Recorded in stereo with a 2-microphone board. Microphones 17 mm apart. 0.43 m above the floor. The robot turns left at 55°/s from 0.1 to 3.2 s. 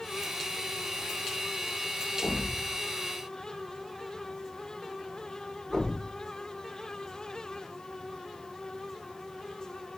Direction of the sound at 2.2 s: 55° left (ahead or behind).